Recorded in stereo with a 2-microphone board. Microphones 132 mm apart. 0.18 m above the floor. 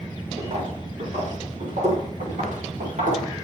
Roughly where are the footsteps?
Right.